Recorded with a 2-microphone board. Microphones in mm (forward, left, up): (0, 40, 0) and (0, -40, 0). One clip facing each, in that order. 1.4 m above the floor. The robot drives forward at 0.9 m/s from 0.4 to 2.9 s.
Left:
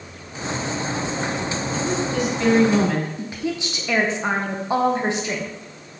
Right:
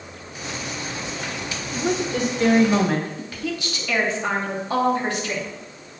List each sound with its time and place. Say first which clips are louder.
1.7 s a woman speaking: right 1 dB; 55° right (ahead or behind), 1.3 m; by 3.1 s 30° right (ahead or behind), 2 m
3.2 s a woman speaking: left 2 dB; 20° left (ahead or behind), 0.8 m